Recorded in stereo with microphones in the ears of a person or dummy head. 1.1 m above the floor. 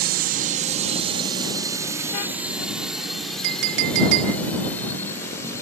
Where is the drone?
55° right (ahead or behind); by 5.6 s 15° left (ahead or behind).